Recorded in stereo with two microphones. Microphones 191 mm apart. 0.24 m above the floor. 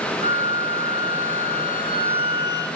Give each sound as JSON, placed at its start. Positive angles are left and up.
{"t": 0.2, "sound": "a flute", "side_deg": -40, "distance_m": 4.0}